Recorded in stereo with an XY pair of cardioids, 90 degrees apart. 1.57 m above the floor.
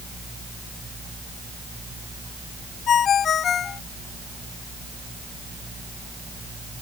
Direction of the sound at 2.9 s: 65° left.